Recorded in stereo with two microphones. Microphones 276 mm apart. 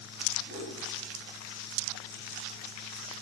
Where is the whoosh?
55° right (ahead or behind), 2 m.